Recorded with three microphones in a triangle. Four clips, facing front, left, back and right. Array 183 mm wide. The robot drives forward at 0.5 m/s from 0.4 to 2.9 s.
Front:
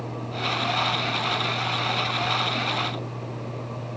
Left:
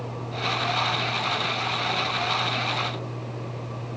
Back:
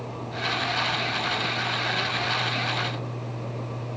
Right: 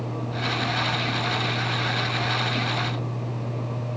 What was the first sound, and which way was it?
Only background noise.